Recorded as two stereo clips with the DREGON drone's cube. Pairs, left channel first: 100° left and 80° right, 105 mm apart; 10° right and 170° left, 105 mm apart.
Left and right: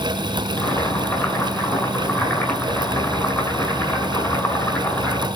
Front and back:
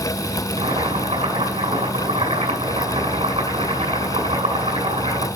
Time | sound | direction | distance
0.6 | boiling | 175° left | 7.5 m